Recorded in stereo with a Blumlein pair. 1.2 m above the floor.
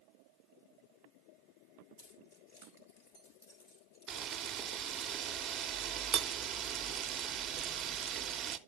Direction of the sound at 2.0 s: 55° left.